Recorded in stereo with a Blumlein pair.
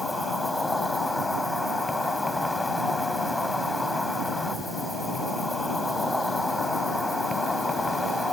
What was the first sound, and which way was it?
An insect, 5° left.